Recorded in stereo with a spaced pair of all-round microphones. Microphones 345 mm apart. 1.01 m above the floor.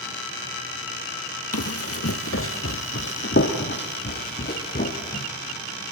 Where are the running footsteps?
45° left (ahead or behind), 1.7 m; by 5.3 s 25° left (ahead or behind), 3 m.